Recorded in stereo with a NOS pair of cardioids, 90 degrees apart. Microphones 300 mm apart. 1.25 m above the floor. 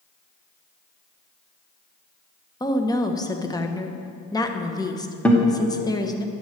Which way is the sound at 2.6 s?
15° left.